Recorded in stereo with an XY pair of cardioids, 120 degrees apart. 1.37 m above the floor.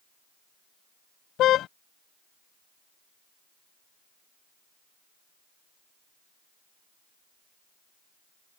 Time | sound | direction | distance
1.4 | a car horn | 70° left | ?